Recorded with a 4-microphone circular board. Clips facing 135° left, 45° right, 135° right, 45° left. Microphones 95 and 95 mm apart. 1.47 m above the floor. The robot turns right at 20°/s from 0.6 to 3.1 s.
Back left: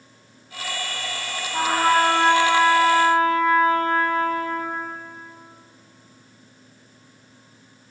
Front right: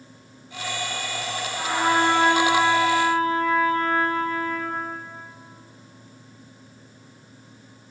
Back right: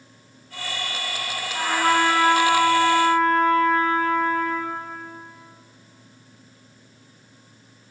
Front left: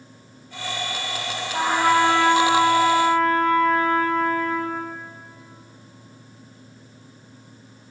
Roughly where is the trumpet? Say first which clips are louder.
Back left 3 dB, front left 2 dB; left.